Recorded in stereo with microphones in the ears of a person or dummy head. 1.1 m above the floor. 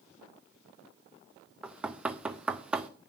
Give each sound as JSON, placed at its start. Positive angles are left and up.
{"t": 1.6, "sound": "knocking", "side_deg": -15, "distance_m": 0.6}